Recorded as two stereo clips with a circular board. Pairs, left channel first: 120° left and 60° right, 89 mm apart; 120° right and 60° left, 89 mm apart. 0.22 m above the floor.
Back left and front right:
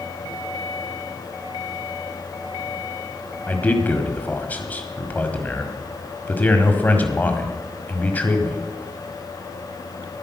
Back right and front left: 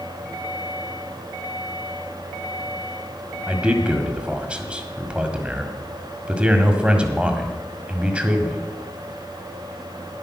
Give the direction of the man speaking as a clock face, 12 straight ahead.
8 o'clock.